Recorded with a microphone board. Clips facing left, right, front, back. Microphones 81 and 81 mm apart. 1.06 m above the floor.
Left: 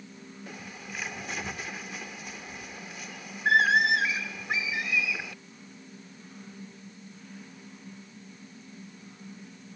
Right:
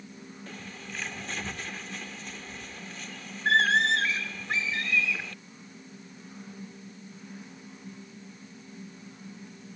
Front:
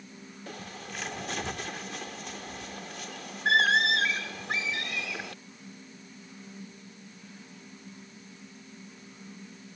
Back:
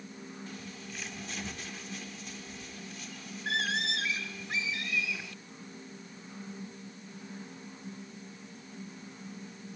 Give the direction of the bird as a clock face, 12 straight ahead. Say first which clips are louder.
Left 1 dB, front 3 dB; 12 o'clock.